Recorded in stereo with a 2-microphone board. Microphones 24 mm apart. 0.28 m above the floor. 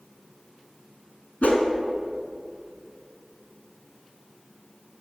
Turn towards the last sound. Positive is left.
turn(degrees=75)  # may be behind; listen again after turning